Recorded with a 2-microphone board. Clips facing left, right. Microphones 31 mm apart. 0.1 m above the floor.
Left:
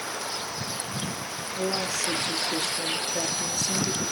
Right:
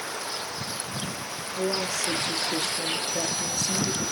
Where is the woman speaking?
30° right (ahead or behind), 1.4 m.